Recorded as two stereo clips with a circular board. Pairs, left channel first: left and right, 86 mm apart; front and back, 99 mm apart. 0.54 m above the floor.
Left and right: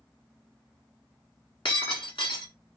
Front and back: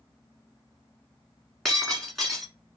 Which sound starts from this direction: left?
Breaking glass, at 1.6 s.